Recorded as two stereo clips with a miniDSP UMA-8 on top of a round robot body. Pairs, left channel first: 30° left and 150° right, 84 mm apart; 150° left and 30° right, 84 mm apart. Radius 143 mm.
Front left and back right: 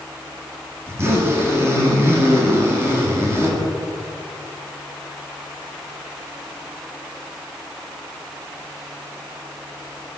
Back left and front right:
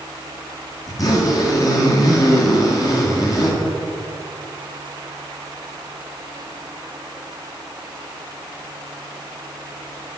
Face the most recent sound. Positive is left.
turn(degrees=165)